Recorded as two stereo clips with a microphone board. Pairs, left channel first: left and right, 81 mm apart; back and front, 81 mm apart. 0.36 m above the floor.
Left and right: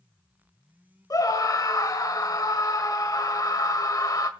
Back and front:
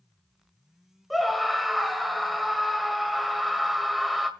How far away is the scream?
About 1.5 m.